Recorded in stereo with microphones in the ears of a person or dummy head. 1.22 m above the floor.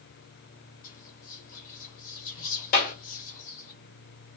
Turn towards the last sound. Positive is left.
turn(degrees=45)  # may be behind; listen again after turning